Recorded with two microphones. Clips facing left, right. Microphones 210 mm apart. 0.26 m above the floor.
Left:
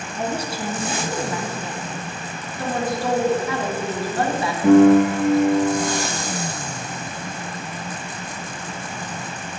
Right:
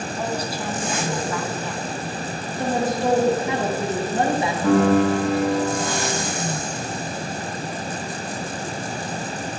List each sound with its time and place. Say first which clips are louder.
0.2 s a woman speaking: left 3 dB; 25° left (ahead or behind), 2.5 m
2.6 s a woman speaking: right 2 dB; 20° right (ahead or behind), 4.5 m
4.6 s a piano: left 6 dB; 15° left (ahead or behind), 5.5 m